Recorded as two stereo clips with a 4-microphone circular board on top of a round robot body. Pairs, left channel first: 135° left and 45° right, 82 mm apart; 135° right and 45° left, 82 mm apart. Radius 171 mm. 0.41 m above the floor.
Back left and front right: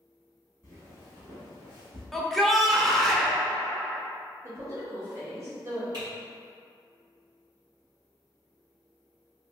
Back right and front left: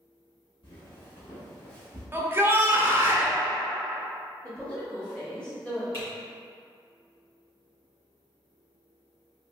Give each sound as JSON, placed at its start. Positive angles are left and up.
{"t": 0.6, "sound": "footsteps", "azimuth_deg": -105, "distance_m": 0.8}
{"t": 2.1, "sound": "a shout", "azimuth_deg": 55, "distance_m": 0.8}
{"t": 4.4, "sound": "a woman speaking", "azimuth_deg": -70, "distance_m": 1.2}
{"t": 5.9, "sound": "typing on a keyboard", "azimuth_deg": -80, "distance_m": 2.0}